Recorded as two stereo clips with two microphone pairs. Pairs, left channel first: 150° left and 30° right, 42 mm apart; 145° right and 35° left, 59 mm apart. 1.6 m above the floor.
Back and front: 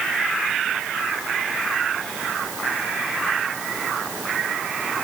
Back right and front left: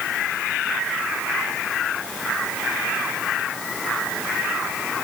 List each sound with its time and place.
Only background noise.